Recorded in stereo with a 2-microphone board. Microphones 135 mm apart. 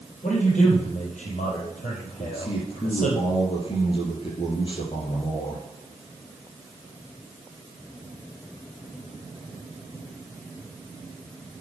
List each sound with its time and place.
0.2 s a man speaking: 70° left (ahead or behind), 5 m
2.2 s a man speaking: 40° left (ahead or behind), 5.5 m